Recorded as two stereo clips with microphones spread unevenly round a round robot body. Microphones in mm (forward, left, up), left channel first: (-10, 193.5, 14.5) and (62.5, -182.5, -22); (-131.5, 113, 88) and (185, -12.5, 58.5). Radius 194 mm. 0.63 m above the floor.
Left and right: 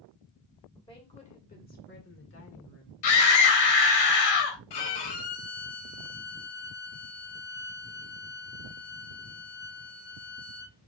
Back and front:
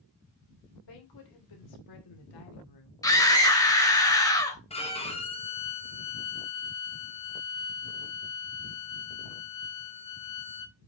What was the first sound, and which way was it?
A woman speaking, straight behind.